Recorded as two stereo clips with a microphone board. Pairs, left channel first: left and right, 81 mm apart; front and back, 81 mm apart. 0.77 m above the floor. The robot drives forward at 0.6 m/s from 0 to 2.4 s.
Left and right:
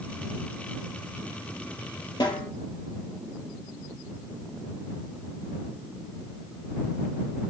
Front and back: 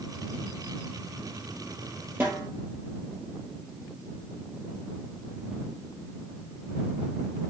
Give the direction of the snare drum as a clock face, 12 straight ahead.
8 o'clock.